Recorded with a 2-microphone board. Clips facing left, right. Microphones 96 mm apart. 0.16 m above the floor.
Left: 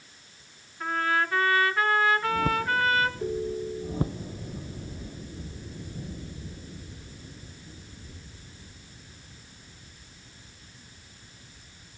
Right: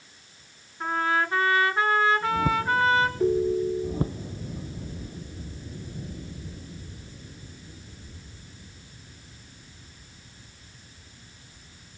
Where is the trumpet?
25° right (ahead or behind), 2.5 m.